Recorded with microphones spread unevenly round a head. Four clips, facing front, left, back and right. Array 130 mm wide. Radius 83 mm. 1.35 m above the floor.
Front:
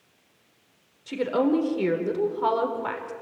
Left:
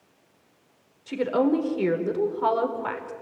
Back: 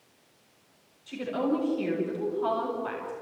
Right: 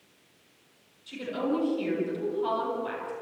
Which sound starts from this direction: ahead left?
A woman speaking, at 1.1 s.